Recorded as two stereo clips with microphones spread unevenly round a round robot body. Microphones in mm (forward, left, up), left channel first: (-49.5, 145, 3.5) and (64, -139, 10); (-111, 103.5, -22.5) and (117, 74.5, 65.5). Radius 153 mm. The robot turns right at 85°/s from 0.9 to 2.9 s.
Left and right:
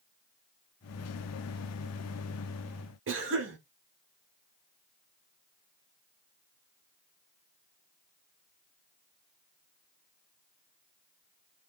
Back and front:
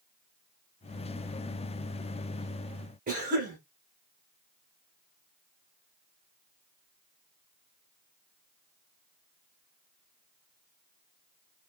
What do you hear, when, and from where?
3.1 s a cough: 75° right, 0.9 m